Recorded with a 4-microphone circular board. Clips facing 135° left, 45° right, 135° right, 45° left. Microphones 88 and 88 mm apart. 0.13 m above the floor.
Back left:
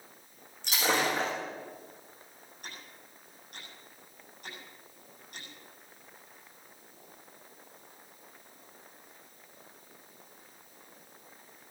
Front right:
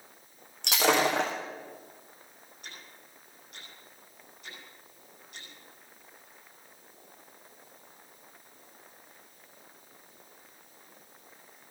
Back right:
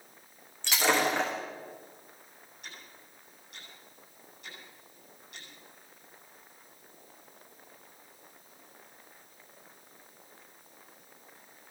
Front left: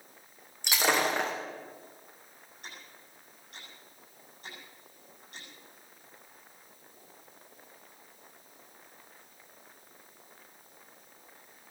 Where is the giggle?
No giggle in this recording.